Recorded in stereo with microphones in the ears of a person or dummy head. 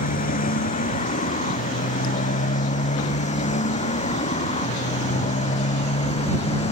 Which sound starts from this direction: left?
A motorcycle, at 0.0 s.